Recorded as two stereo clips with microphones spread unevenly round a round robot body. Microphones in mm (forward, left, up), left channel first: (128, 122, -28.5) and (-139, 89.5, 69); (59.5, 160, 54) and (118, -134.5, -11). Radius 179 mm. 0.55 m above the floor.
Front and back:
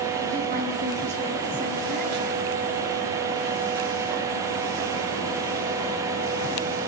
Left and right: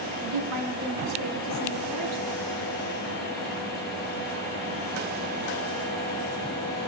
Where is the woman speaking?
100° right, 6 m; by 2.8 s 125° right, 7.5 m.